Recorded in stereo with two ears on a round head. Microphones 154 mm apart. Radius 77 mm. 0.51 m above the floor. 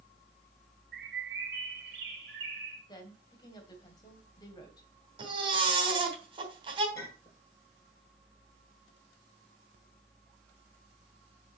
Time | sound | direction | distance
0.9 | a bird | 70° right (ahead or behind) | 4 m
2.9 | a woman speaking | 25° left (ahead or behind) | 2.5 m
5.2 | a baby crying | 30° right (ahead or behind) | 3.5 m
7.0 | a clink | 15° left (ahead or behind) | 6 m